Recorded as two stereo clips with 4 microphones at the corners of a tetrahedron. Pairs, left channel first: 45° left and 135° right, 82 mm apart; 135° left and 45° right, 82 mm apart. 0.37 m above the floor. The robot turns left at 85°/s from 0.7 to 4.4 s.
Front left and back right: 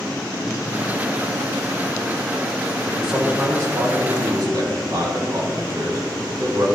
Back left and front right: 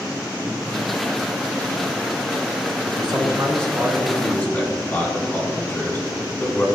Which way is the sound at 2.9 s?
30° right.